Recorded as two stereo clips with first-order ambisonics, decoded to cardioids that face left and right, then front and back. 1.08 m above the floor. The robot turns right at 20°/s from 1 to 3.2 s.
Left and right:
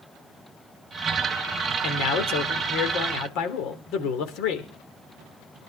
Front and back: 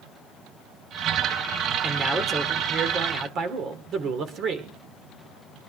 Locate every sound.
1.8 s a man speaking: 95° left, 3.5 m; by 4.7 s 125° left, 3.5 m